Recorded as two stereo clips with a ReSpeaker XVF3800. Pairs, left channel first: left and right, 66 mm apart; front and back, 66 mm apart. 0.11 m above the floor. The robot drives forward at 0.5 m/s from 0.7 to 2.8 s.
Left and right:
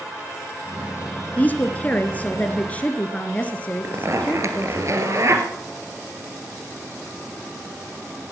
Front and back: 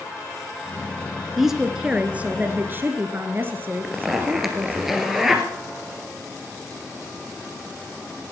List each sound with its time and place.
1.4 s a woman speaking: 100° left, 1.3 m; by 4.8 s 145° left, 1.5 m
3.8 s a zipper: 95° right, 2 m